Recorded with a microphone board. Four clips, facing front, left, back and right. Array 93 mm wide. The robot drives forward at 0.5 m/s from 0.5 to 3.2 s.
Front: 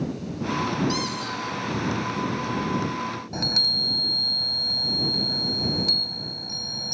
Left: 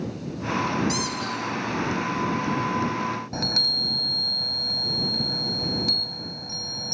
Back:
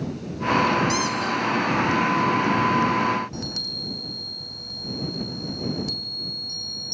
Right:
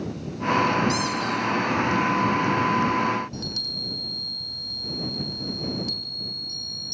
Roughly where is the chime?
Left.